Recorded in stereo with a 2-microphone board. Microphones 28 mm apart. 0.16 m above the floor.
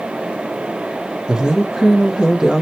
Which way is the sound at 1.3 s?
25° right (ahead or behind).